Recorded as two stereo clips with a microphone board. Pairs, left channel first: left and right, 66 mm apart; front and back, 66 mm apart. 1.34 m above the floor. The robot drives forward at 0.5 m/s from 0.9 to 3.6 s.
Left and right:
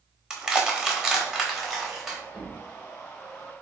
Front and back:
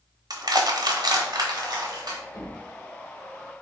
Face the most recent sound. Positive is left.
turn(degrees=15)